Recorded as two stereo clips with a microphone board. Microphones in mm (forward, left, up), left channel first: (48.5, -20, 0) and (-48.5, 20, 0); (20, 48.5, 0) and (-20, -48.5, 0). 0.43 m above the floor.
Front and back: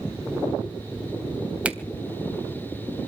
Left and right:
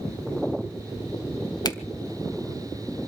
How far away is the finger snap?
About 1.4 m.